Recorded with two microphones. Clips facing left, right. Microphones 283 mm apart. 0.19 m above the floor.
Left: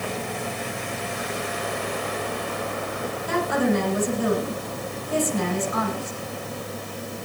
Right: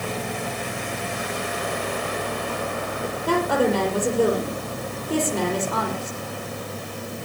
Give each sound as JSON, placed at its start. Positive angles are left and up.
{"t": 3.3, "sound": "a woman speaking", "side_deg": -80, "distance_m": 6.0}